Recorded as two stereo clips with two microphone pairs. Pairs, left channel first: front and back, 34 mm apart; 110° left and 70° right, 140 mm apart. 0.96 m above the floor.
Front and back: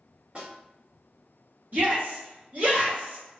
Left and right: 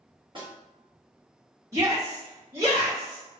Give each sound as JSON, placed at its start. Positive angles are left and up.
{"t": 0.3, "sound": "a snare drum", "azimuth_deg": -120, "distance_m": 1.1}
{"t": 1.7, "sound": "a shout", "azimuth_deg": -135, "distance_m": 1.5}